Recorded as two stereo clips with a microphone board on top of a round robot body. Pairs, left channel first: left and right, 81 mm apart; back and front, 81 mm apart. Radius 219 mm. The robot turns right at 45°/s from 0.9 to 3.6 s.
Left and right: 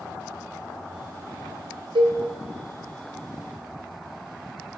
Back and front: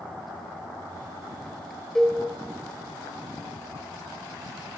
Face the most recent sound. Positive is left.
turn(degrees=-20)